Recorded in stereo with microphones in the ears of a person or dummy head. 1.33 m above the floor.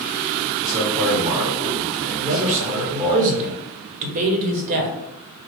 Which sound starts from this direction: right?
A man speaking, at 2.2 s.